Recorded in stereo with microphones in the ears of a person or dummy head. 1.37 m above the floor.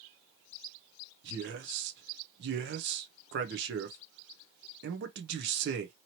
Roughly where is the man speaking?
Right.